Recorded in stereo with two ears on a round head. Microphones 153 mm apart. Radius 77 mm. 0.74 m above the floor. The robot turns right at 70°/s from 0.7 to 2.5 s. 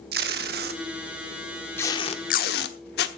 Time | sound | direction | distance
0.1 | tape being pulled | 60° right (ahead or behind) | 1.1 m